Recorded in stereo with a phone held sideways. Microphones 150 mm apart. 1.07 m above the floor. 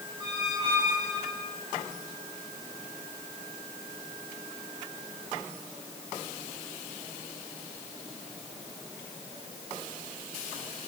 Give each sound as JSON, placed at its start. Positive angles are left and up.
{"t": 0.2, "sound": "a squeak", "side_deg": -5, "distance_m": 3.5}